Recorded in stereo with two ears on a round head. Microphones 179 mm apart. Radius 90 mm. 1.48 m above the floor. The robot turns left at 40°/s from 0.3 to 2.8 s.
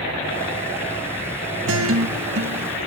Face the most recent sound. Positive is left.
turn(degrees=-70)  # may be behind; listen again after turning